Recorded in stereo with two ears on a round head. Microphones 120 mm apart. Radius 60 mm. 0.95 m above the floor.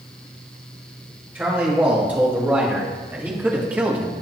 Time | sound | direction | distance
1.4 | a man speaking | 15° right (ahead or behind) | 5.5 m